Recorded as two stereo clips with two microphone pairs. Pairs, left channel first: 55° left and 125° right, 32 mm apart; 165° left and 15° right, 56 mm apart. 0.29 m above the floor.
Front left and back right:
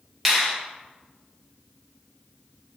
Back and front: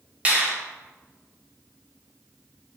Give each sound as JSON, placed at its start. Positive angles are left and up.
{"t": 0.2, "sound": "a finger snap", "azimuth_deg": -40, "distance_m": 0.8}